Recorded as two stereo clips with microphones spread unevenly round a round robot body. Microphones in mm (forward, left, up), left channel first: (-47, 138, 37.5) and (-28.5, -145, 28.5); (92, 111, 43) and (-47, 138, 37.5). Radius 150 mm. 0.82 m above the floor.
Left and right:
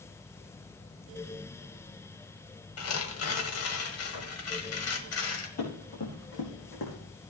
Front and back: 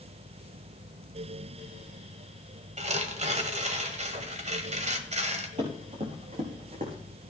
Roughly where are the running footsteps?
Behind left.